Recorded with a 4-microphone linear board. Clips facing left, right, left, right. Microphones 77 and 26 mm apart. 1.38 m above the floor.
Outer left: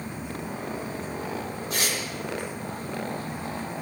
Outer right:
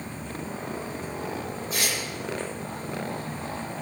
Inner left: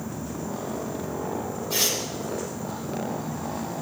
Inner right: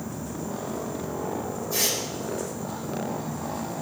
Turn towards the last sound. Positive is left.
turn(degrees=80)